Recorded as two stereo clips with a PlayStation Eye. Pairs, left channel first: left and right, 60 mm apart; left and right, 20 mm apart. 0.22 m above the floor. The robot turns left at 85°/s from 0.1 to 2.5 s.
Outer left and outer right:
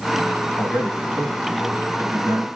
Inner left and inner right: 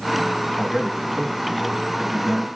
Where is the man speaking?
55° left, 1.3 m; by 2.5 s 110° right, 1.3 m.